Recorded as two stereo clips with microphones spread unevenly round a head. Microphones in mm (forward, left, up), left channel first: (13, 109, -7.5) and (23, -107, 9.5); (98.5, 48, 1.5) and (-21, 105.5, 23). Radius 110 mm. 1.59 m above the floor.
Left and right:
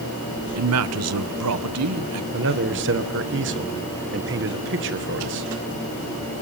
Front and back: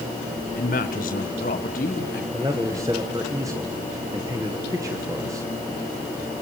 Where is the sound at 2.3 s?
130° right, 1.6 m.